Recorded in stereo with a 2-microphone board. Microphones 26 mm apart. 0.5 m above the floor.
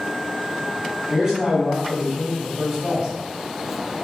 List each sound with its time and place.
1.1 s a man speaking: 25° right (ahead or behind), 1.4 m